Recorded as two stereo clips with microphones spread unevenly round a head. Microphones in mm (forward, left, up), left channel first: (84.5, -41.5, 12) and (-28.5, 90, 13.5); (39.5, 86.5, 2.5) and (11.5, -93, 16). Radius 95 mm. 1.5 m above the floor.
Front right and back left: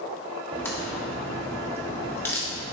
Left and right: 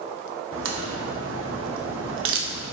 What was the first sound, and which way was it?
A crack, 130° right.